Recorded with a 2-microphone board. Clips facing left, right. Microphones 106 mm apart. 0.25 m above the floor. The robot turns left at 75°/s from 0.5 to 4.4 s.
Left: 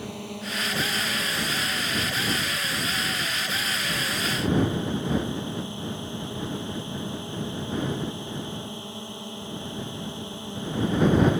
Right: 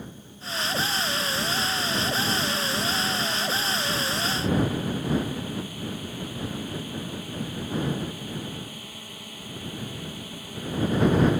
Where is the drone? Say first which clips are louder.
Left 7 dB; 85° left; by 11.4 s 155° left.